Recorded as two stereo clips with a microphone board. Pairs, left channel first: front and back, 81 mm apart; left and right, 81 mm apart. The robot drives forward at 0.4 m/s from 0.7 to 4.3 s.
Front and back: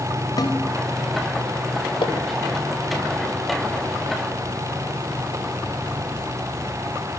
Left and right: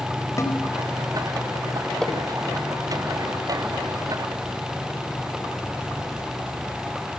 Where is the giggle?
No giggle in this recording.